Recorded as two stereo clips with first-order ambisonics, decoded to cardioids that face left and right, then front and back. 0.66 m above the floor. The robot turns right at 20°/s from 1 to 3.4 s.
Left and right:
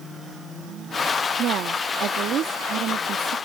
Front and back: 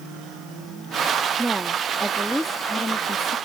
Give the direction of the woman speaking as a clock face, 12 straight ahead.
3 o'clock.